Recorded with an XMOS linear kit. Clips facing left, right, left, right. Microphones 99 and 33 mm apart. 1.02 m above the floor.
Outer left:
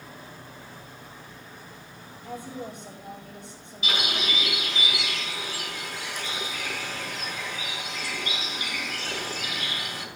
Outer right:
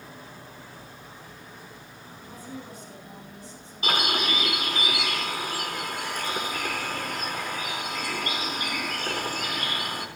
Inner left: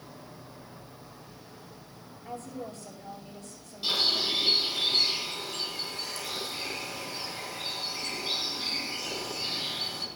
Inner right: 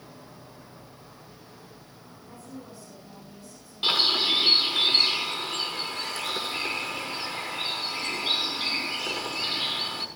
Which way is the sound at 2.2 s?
70° left (ahead or behind).